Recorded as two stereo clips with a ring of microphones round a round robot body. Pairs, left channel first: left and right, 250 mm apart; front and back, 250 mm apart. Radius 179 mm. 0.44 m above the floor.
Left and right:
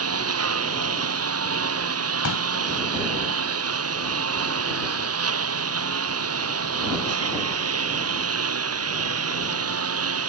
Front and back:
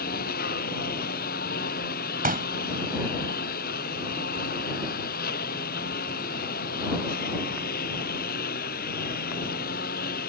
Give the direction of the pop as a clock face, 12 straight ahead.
8 o'clock.